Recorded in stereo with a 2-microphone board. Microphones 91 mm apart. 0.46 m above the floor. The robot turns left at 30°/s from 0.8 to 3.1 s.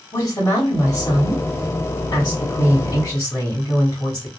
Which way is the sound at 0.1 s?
115° left.